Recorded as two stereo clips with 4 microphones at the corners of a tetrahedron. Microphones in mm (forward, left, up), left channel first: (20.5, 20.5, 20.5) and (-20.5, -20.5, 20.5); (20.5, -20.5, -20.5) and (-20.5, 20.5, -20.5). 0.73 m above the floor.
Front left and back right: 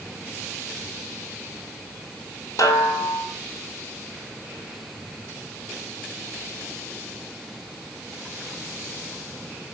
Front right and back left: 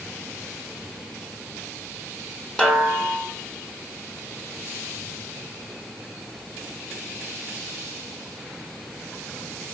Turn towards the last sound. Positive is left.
turn(degrees=30)